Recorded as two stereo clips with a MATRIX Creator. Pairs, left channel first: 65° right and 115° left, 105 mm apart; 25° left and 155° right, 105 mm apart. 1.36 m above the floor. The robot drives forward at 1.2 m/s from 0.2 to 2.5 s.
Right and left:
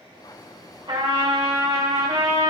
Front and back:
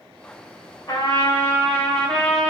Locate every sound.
0.9 s a trumpet: 75° left, 3 m; by 2.5 s 110° left, 3 m